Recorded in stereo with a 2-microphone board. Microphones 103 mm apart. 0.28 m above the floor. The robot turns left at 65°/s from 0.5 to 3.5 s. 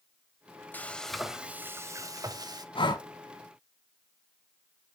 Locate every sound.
0.7 s frying: 30° left, 0.7 m; by 2.6 s 95° right, 0.7 m
2.8 s breathing: 55° left (ahead or behind), 1.0 m; by 3.0 s 35° left (ahead or behind), 1.0 m